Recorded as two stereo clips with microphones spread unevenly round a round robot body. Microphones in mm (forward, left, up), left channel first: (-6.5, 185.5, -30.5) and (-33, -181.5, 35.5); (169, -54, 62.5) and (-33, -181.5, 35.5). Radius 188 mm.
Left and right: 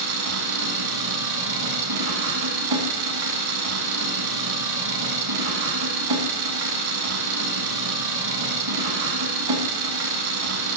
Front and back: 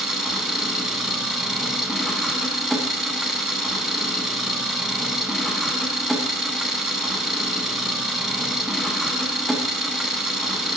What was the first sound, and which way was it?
An engine running, 60° right.